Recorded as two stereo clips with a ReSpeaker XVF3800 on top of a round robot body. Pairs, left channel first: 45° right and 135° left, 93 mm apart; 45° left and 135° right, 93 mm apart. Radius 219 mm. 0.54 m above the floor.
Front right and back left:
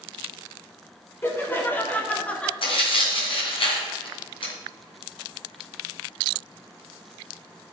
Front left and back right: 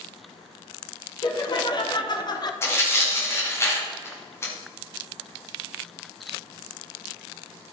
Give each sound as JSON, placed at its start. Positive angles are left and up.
{"t": 1.2, "sound": "laughter", "azimuth_deg": 20, "distance_m": 2.5}
{"t": 2.6, "sound": "tearing paper", "azimuth_deg": -20, "distance_m": 2.5}